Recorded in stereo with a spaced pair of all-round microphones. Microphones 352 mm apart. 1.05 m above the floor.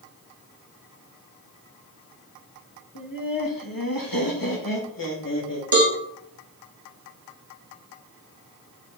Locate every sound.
3.0 s laughter: 60° left (ahead or behind), 1.7 m
5.7 s a cowbell: 70° right (ahead or behind), 2 m